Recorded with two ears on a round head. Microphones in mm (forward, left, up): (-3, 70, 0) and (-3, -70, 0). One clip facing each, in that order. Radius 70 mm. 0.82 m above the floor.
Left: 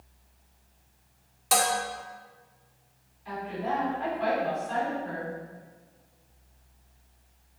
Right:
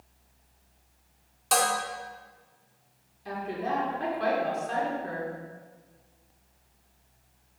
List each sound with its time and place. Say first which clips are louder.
1.5 s dishes clattering: even; 5° left (ahead or behind), 1.4 m
3.2 s a woman speaking: even; 55° right (ahead or behind), 2.5 m